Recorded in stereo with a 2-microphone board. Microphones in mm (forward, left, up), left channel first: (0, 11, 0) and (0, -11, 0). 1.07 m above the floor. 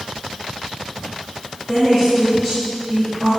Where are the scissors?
I don't hear scissors.